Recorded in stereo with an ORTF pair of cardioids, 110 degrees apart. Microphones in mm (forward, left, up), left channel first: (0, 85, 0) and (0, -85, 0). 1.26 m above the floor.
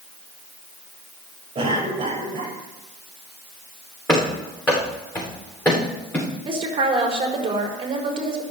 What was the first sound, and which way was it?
A cough, 30° right.